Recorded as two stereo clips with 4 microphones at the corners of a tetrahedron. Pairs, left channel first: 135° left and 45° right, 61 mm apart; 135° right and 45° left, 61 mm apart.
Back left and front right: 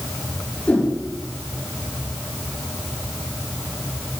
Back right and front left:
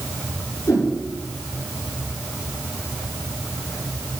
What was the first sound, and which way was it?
A whoosh, 165° right.